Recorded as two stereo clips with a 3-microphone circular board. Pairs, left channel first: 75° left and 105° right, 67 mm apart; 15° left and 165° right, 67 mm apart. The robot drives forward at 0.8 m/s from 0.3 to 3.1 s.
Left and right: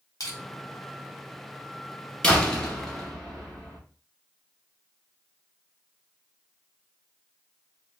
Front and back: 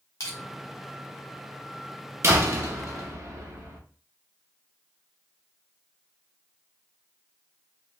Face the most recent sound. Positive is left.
turn(degrees=160)